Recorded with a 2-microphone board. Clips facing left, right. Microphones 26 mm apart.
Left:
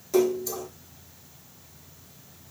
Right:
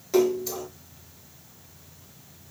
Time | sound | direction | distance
0.1 | a splash | 20° right (ahead or behind) | 1.9 m